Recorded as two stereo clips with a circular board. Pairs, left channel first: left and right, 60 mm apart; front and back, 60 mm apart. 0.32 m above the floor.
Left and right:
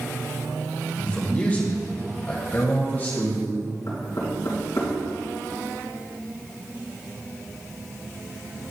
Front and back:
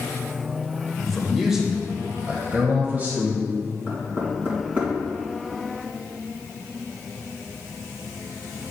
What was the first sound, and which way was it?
A man speaking, 75° left.